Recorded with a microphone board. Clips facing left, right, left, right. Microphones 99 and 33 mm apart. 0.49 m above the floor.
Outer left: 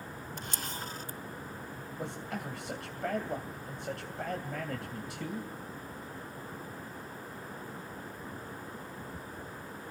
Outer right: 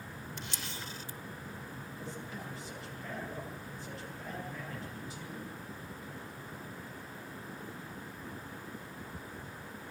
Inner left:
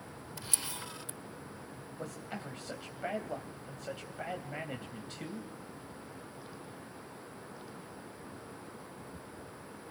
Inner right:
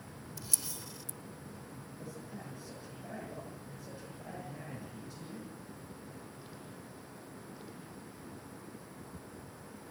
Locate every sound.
0.4 s a camera shutter: 40° left (ahead or behind), 0.6 m
2.0 s a man speaking: 70° left (ahead or behind), 2.5 m